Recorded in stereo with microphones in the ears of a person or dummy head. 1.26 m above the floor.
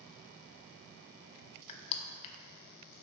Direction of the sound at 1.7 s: 35° left (ahead or behind).